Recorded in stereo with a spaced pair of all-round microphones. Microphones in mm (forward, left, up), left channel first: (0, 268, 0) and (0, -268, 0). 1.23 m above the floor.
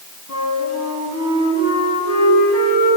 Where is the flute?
30° left (ahead or behind), 4.5 m.